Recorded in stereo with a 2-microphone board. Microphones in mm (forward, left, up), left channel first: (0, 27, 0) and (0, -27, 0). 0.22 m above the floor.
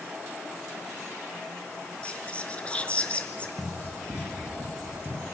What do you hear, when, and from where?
2.0 s whispering: 20° left (ahead or behind), 4 m
3.6 s running footsteps: 15° right (ahead or behind), 6 m; by 5.3 s 30° right (ahead or behind), 6 m